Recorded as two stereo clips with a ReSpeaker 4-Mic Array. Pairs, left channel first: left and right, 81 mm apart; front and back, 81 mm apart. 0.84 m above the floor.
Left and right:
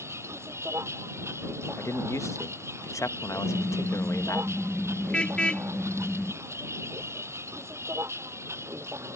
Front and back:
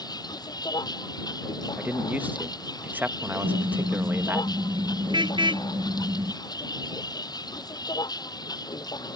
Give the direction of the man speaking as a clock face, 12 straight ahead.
8 o'clock.